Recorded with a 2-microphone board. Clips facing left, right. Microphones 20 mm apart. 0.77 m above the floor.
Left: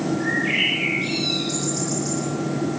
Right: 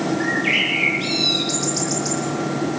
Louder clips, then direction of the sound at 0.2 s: Right 2 dB; 40° right (ahead or behind).